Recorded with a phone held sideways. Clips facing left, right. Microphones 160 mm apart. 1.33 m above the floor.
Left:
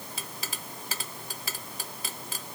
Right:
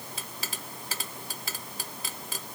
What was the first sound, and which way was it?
Only background noise.